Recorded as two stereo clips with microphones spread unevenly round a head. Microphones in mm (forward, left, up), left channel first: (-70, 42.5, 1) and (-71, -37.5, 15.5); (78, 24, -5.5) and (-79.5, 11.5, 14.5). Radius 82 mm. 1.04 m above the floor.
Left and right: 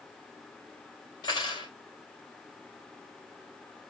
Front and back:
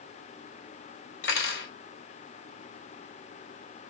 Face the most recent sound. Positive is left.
turn(degrees=20)